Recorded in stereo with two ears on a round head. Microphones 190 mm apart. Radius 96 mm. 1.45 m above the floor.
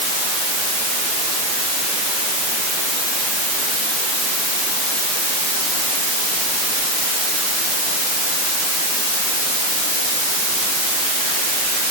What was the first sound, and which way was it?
Only background noise.